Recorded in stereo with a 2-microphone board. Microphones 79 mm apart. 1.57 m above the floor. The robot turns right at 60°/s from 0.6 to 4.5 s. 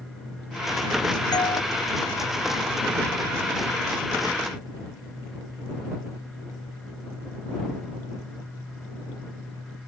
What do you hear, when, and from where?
1.3 s a doorbell: 50° left (ahead or behind); by 1.6 s 70° left (ahead or behind)